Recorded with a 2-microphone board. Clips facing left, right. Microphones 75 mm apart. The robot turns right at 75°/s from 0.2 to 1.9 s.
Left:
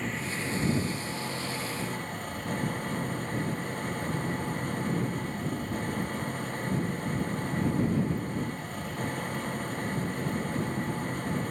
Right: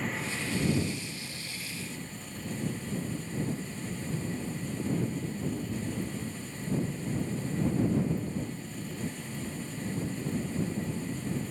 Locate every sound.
0.0 s an engine running: straight ahead; by 11.5 s 125° left